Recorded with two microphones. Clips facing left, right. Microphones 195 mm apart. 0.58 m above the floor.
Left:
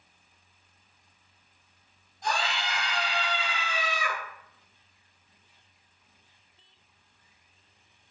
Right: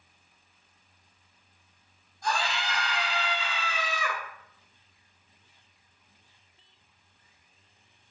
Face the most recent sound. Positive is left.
turn(degrees=25)  # may be behind; listen again after turning